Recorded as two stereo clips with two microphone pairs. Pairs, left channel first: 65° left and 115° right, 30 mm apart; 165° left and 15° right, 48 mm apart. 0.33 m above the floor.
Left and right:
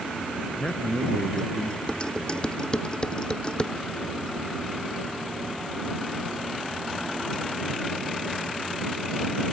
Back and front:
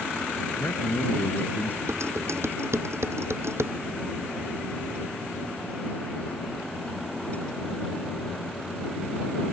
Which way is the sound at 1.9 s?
5° left.